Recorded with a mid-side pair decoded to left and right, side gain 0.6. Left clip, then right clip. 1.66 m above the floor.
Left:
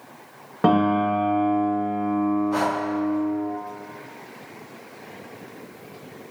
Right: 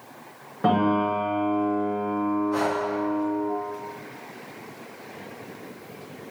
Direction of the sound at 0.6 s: 40° left.